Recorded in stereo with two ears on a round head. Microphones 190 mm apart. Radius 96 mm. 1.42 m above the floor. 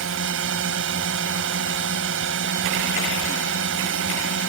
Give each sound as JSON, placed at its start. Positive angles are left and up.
{"t": 0.0, "sound": "a drone", "side_deg": -65}